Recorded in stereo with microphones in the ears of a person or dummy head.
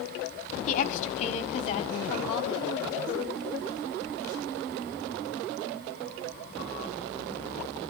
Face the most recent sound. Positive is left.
turn(degrees=30)  # may be behind; listen again after turning